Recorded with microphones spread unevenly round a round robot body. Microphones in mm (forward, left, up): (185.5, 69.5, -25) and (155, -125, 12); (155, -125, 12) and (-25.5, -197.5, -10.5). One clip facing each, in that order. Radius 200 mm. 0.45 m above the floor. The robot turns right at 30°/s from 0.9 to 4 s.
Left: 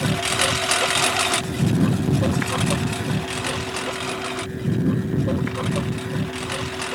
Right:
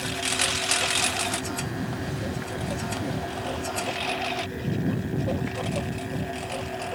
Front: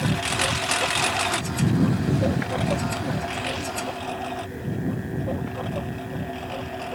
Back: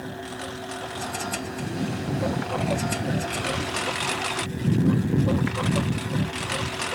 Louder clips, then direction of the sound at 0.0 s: Left 7 dB, front 7 dB; 65° left.